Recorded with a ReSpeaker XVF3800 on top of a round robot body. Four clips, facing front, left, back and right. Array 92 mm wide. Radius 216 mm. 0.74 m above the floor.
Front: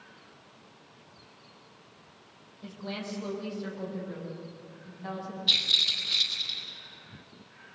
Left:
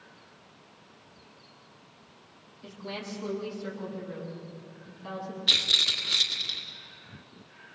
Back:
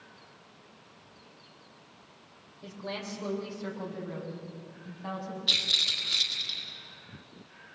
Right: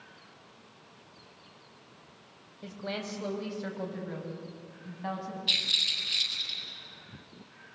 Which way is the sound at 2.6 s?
100° right.